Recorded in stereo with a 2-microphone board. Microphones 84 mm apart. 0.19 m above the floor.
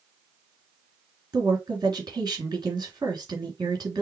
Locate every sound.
1.3 s a woman speaking: 55° right (ahead or behind), 2.5 m